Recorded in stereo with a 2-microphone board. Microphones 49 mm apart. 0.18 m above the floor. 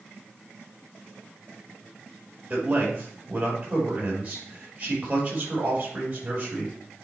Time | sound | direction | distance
2.5 | a man speaking | 25° right (ahead or behind) | 5 m